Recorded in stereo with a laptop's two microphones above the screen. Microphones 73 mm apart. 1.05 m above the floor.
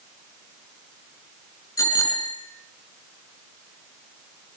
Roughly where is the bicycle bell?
Left.